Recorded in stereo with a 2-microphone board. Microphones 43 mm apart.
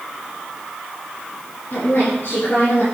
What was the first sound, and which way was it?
A woman speaking, 50° left (ahead or behind).